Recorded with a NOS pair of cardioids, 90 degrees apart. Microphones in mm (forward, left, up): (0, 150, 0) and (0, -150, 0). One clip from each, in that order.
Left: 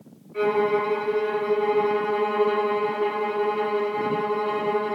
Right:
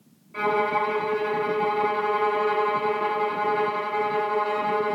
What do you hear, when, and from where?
0.3 s a violin: 60° right, 1.8 m